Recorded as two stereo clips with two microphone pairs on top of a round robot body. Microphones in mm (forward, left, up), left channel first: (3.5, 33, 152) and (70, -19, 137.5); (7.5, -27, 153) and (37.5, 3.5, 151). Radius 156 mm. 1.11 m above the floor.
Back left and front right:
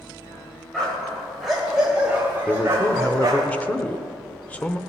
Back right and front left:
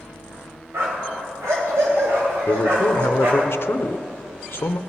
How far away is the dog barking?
About 2.5 m.